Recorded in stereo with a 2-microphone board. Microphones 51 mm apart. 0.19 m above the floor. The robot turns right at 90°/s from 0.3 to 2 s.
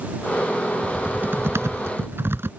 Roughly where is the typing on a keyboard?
Behind.